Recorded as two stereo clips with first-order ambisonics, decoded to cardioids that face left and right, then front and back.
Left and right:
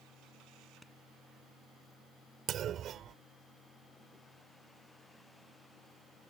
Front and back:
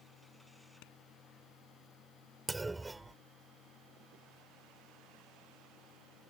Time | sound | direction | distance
0.8 | a clap | straight ahead | ?
2.5 | a clunk | 105° right | ?